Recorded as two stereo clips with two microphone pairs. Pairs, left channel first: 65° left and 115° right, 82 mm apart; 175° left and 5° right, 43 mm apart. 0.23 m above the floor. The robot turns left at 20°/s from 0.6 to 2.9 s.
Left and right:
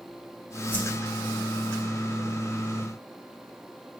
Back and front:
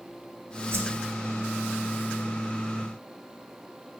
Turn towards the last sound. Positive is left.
turn(degrees=-45)